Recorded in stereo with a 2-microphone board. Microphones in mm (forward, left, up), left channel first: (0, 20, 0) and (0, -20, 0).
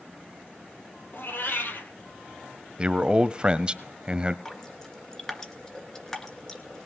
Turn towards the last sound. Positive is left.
turn(degrees=15)  # may be behind; listen again after turning